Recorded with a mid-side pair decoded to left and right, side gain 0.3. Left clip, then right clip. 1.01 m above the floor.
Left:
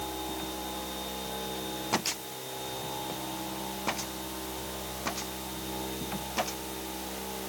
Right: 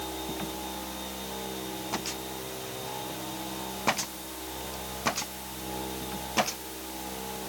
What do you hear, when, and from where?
Only background noise.